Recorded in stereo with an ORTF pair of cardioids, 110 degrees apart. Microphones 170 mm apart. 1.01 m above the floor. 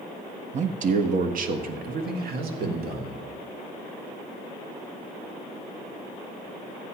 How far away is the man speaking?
About 1.0 m.